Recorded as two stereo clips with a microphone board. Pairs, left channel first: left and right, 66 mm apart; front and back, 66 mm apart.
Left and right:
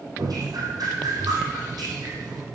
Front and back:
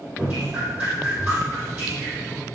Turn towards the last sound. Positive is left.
turn(degrees=-115)